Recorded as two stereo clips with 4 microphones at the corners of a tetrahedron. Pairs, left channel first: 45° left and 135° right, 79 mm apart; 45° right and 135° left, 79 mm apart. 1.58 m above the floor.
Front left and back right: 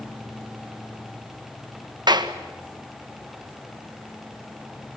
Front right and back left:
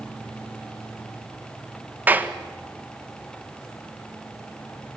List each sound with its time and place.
2.1 s a clap: 160° right, 1.6 m